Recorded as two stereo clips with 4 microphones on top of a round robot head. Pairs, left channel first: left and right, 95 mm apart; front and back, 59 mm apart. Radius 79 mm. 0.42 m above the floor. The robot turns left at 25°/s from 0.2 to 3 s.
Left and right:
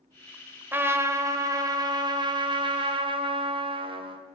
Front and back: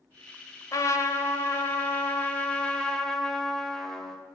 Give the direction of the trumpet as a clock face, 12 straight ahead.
1 o'clock.